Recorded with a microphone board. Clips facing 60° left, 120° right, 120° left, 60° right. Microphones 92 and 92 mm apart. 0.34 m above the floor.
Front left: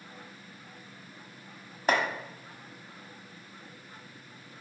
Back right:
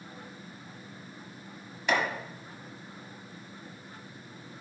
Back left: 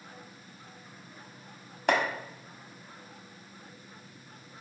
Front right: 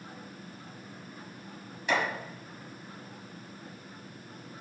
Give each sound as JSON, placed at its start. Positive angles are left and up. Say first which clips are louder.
{"t": 1.9, "sound": "chopping", "louder": "front left 1 dB, back left 3 dB", "azimuth_deg": 100, "distance_m": 1.2}